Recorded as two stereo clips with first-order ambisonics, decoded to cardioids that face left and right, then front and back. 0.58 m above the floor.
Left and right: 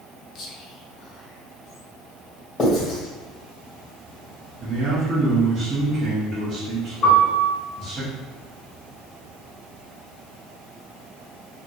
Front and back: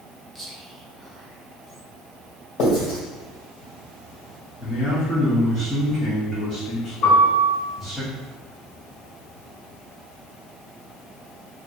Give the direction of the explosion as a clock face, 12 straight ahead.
No explosion in this recording.